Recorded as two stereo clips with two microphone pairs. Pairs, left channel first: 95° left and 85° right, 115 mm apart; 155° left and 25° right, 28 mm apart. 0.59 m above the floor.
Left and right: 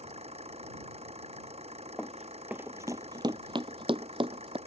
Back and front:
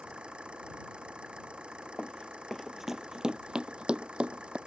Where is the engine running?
70° right.